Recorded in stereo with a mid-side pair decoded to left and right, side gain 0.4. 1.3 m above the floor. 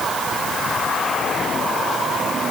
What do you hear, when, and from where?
Only background noise.